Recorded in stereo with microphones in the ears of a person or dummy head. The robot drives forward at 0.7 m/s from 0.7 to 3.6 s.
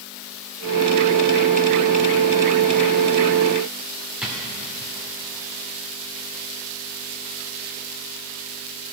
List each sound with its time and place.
4.2 s a drawer: 5° right (ahead or behind), 2 m